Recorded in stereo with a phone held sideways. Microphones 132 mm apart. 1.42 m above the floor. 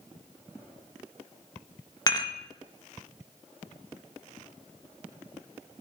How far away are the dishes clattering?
About 1.3 m.